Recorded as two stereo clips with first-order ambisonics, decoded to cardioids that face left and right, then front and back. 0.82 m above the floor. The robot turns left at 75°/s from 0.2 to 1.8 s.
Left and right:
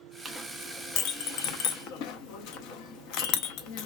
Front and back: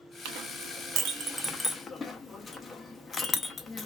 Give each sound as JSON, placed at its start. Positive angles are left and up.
{"t": 0.2, "sound": "a clink", "azimuth_deg": -170, "distance_m": 0.5}